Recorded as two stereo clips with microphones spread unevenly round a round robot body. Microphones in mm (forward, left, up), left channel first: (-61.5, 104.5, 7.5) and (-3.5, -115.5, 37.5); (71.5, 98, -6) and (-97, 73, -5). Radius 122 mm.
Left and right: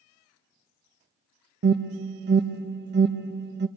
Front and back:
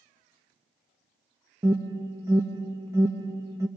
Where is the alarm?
100° right, 0.9 m.